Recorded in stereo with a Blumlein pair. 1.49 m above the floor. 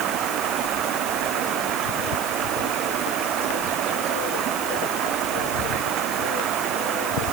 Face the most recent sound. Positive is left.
turn(degrees=-30)